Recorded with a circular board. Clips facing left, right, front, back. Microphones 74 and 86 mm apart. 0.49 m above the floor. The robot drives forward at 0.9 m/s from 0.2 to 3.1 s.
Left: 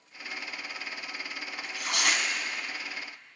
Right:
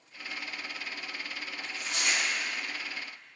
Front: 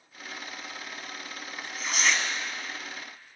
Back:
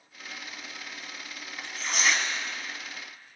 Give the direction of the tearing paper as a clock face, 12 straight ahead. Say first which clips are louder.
Left 5 dB, even; 9 o'clock.